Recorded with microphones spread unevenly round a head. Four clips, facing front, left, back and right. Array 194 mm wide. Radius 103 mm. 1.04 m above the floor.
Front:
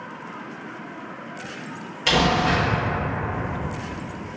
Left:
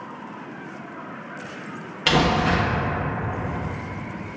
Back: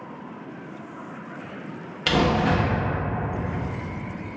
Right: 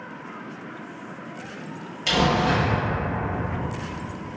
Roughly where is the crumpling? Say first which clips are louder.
Left 1 dB, front 1 dB; left.